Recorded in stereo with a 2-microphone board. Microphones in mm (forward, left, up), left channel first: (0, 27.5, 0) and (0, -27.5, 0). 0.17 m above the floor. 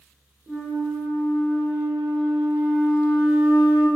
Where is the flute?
30° right (ahead or behind), 2.0 m.